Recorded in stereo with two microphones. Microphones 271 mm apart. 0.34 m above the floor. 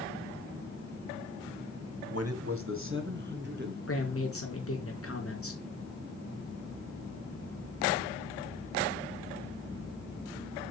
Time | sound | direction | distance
2.1 | a man speaking | 60° right (ahead or behind) | 1.9 m
3.9 | a man speaking | 50° left (ahead or behind) | 4 m